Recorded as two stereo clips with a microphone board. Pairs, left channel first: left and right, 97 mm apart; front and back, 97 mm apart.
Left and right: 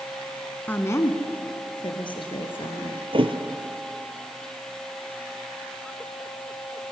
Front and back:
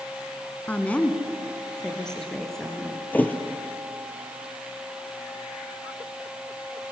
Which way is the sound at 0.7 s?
50° left.